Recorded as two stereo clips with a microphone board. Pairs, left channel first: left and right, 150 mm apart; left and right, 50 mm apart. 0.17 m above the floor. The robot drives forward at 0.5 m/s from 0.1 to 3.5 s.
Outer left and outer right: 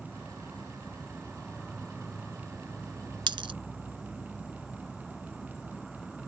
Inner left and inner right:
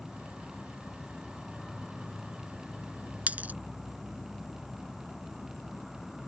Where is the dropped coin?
35° right (ahead or behind).